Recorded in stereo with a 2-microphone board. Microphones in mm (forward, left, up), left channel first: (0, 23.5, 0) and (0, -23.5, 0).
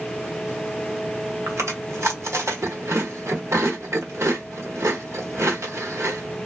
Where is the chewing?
70° right (ahead or behind), 1.0 m.